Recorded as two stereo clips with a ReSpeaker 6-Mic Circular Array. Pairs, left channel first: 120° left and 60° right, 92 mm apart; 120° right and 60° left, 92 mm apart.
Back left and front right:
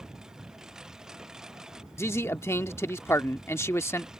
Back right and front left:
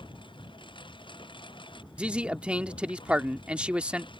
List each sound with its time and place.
0.0 s a lawn mower: 145° right
2.0 s a man speaking: 125° left